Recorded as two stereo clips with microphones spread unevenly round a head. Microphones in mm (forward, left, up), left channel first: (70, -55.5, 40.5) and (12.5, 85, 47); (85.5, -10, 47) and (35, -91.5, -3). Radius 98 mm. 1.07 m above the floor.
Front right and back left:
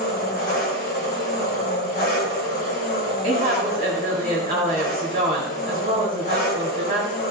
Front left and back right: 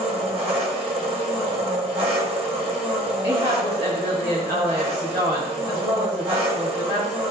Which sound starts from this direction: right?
An engine running, at 0.0 s.